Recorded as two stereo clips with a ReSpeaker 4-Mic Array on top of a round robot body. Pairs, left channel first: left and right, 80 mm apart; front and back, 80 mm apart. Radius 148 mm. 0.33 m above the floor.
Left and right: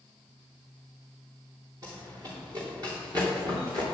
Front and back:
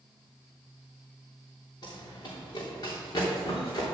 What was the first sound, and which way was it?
Running footsteps, 45° right.